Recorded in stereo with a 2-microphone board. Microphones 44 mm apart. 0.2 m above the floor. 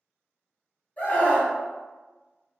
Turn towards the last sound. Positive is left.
turn(degrees=30)  # may be behind; listen again after turning